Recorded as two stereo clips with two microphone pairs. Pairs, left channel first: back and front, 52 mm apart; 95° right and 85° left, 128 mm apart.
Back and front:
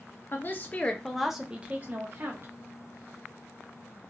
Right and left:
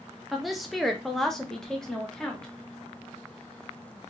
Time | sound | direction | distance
0.3 | a woman speaking | 175° left | 0.6 m